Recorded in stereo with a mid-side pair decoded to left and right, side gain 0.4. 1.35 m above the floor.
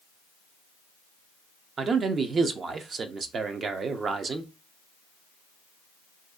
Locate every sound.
1.8 s a man speaking: 50° right, 0.5 m